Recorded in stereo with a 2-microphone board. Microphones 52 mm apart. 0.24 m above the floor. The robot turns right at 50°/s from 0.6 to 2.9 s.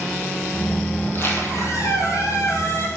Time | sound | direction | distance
1.0 | a squeak | 40° left | 1.5 m